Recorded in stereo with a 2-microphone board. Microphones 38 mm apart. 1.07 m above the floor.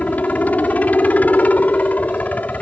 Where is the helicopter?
45° left (ahead or behind).